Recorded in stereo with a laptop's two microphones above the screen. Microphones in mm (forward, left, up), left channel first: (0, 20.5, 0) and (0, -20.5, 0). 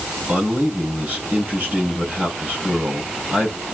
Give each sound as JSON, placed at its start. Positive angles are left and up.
{"t": 0.3, "sound": "a man speaking", "side_deg": -50, "distance_m": 4.0}